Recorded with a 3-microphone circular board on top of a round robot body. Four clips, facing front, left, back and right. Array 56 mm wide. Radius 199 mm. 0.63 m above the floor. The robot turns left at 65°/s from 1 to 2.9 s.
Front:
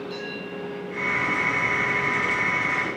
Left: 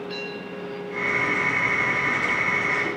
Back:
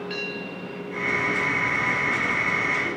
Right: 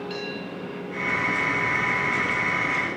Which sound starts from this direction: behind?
A bell, at 0.1 s.